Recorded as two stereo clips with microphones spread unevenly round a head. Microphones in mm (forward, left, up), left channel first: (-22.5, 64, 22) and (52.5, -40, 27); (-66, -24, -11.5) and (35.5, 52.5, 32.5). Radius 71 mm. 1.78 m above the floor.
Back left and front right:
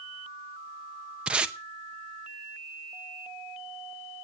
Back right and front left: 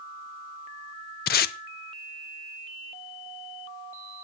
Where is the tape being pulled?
140° right, 0.6 m.